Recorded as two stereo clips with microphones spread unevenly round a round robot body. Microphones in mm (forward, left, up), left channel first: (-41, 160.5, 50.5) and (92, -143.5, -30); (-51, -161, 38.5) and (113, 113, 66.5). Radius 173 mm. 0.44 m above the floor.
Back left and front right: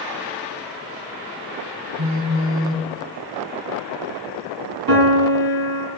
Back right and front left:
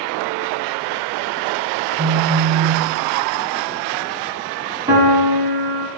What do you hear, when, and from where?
2.0 s a phone buzzing: 10° right, 1.3 m
4.9 s a piano: 20° right, 3.5 m